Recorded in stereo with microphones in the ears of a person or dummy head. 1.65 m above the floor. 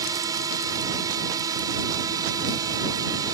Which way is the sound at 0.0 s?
20° right (ahead or behind).